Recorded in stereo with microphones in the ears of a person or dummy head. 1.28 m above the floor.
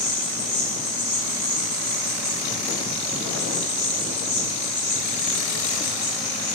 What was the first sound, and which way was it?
An insect, 25° right (ahead or behind).